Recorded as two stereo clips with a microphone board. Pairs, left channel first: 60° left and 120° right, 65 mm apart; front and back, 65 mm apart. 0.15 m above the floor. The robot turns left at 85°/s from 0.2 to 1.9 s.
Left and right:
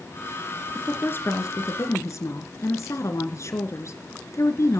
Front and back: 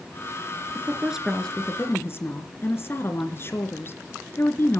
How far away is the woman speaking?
About 2.5 m.